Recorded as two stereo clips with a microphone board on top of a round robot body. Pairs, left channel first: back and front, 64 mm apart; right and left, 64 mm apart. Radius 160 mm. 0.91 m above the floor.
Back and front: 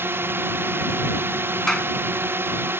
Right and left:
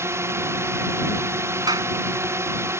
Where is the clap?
100° left.